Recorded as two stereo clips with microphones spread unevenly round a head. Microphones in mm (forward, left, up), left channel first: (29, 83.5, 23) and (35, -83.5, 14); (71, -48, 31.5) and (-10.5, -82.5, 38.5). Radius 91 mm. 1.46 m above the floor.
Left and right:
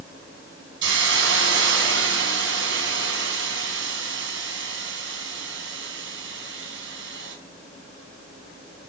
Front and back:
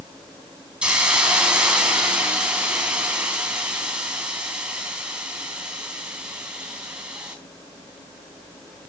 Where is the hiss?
80° right, 3.5 m.